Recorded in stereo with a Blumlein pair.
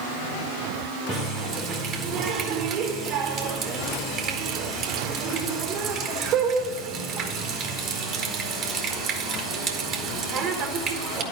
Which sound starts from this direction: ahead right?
A running tap, at 1.1 s.